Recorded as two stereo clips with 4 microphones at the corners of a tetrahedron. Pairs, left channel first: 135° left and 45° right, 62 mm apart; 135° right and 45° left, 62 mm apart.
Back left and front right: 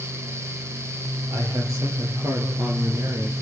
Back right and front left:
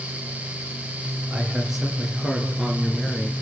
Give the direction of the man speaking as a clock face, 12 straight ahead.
1 o'clock.